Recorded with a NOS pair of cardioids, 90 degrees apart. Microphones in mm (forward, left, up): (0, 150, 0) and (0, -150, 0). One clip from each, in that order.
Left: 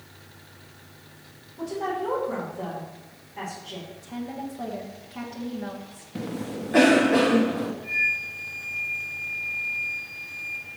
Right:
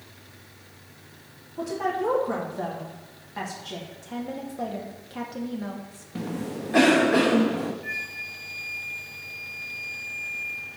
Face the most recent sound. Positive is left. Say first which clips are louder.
# left 7 dB
turn(degrees=-55)